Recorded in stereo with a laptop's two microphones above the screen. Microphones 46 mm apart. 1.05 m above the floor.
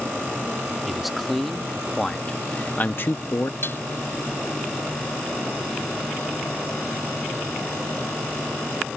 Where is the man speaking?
Centre (ahead or behind); by 3.5 s 65° left (ahead or behind).